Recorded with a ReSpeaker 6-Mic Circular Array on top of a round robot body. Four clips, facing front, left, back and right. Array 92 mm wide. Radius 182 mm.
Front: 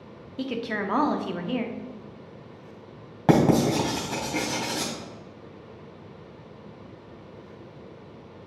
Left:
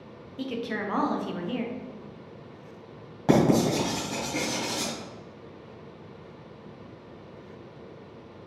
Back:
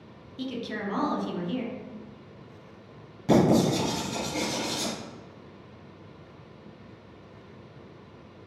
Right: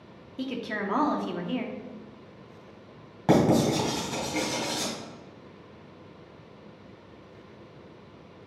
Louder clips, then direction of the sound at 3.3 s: Even, front 1 dB; 5° left.